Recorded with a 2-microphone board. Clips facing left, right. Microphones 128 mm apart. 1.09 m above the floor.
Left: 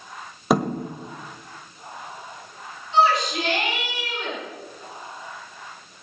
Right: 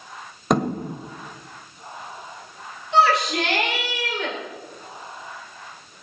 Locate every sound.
0.5 s a thud: 5° left (ahead or behind), 1.8 m
2.9 s a shout: 75° right (ahead or behind), 5.5 m